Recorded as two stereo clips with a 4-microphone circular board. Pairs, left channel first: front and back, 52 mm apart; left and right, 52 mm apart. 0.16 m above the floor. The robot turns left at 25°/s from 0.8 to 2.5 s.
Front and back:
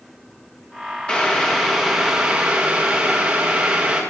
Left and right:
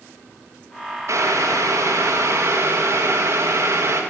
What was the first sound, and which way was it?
Boiling, 70° right.